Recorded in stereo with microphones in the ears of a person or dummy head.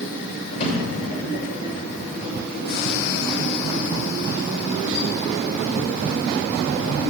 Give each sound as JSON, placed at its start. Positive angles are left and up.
{"t": 0.5, "sound": "a drawer", "side_deg": 40, "distance_m": 3.0}